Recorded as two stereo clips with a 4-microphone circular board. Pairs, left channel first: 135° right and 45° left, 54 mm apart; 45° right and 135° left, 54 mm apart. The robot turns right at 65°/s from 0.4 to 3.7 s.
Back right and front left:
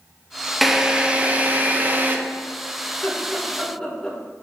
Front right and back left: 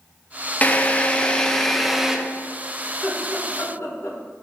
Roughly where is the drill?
Ahead right.